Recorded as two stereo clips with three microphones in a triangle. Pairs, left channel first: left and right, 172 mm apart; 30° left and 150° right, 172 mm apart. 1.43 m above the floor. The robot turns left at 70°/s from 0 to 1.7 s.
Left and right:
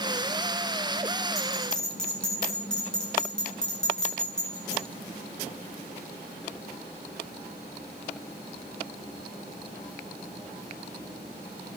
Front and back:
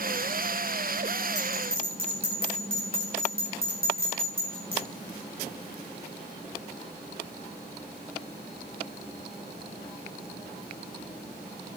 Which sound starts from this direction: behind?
A bell, at 1.4 s.